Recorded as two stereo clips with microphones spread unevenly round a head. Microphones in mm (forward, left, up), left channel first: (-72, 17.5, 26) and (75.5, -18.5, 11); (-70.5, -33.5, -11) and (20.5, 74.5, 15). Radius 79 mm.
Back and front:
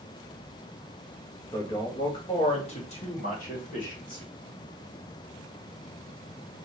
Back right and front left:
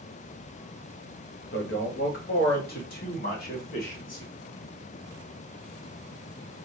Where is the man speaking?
120° right, 1.1 m; by 4.2 s 155° right, 2.5 m.